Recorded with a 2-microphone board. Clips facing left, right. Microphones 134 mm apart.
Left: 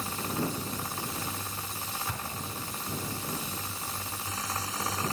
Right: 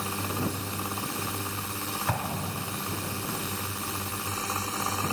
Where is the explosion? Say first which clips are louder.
Right 7 dB; 70° right (ahead or behind).